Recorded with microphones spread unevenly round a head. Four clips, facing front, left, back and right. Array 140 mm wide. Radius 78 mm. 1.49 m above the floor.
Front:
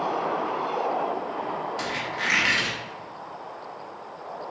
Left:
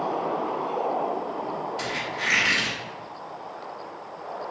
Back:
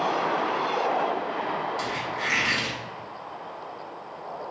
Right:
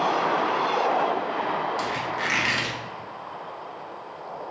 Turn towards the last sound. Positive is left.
turn(degrees=-85)